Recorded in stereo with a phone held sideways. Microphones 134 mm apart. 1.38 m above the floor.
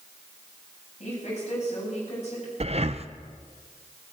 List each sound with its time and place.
1.0 s a woman speaking: 55° left (ahead or behind), 9.5 m
2.6 s breathing: 50° right (ahead or behind), 0.6 m